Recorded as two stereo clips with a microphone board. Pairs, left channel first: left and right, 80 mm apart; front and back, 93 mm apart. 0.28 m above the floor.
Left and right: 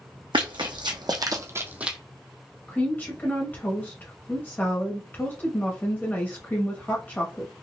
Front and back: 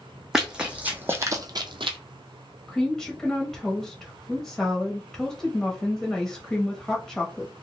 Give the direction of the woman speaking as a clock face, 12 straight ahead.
10 o'clock.